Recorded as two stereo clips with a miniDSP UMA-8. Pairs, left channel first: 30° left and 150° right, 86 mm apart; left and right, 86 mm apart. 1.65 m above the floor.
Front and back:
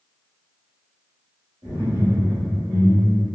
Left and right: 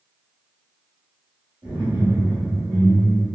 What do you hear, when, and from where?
1.6 s laughter: 110° right, 1.3 m; by 3.3 s 70° right, 1.5 m